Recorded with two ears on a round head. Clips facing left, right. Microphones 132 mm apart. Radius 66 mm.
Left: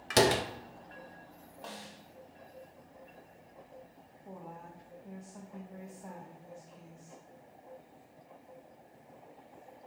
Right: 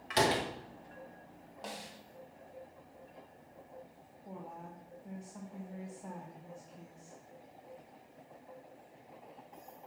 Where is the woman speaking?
Centre (ahead or behind), 1.5 m.